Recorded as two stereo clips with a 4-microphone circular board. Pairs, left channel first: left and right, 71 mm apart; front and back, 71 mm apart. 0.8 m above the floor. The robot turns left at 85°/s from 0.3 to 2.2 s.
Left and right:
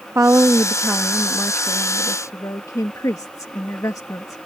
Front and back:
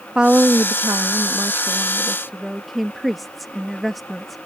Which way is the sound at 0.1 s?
110° right.